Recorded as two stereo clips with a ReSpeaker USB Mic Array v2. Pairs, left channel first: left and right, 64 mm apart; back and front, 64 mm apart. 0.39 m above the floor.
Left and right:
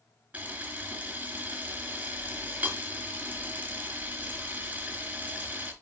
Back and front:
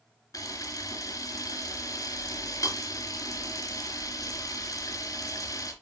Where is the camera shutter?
155° right, 2.5 m.